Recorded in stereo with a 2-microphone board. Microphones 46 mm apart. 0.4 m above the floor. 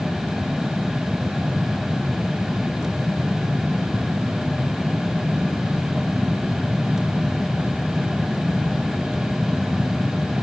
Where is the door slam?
I don't hear a door slam.